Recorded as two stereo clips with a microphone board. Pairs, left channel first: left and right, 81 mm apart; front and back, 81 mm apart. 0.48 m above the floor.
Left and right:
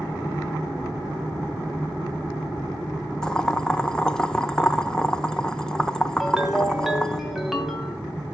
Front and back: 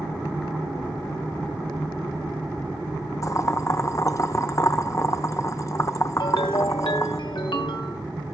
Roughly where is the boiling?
Ahead.